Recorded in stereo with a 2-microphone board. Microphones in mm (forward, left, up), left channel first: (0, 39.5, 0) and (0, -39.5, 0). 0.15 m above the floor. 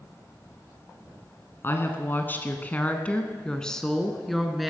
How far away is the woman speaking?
About 1.4 m.